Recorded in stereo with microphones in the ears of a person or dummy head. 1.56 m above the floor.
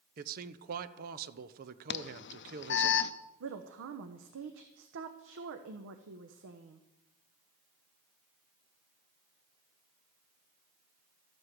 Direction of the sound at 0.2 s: 50° right (ahead or behind).